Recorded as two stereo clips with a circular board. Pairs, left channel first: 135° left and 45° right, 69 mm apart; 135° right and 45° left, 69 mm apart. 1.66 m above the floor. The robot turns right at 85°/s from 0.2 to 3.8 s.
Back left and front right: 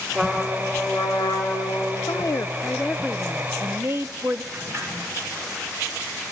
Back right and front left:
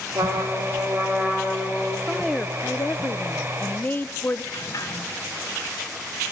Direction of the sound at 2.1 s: 130° left.